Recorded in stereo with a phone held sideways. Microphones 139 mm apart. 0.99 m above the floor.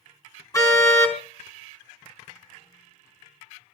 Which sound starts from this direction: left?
A car horn, at 0.5 s.